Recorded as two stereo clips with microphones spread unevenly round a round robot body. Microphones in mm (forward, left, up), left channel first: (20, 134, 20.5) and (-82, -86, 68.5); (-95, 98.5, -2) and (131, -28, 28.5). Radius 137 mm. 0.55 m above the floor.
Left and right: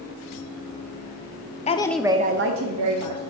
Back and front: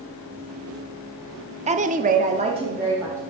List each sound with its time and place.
1.7 s a woman speaking: 35° left, 0.8 m; by 3.2 s 110° right, 1.4 m